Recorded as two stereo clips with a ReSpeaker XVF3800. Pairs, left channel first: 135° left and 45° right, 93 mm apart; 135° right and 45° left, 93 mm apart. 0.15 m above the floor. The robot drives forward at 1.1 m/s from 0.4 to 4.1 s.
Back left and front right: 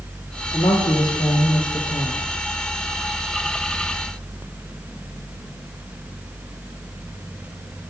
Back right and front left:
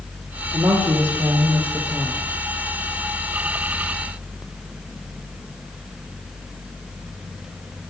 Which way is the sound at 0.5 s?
90° left.